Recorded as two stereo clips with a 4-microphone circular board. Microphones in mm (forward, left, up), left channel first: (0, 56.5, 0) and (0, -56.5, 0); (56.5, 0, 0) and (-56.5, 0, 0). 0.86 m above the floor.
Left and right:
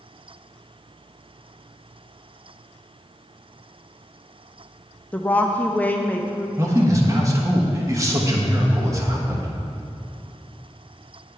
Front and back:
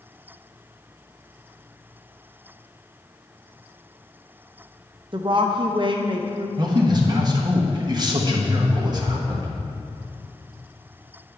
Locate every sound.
5.1 s a woman speaking: 160° left, 0.5 m
6.6 s a man speaking: 145° right, 1.1 m